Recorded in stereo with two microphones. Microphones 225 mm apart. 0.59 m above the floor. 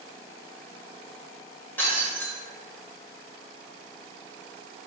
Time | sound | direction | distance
1.8 | breaking glass | 10° left (ahead or behind) | 1.6 m